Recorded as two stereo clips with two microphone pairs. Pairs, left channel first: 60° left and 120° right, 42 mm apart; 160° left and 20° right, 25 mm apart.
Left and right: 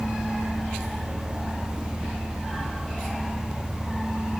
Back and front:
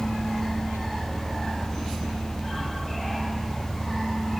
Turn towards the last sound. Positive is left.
No sound to turn to.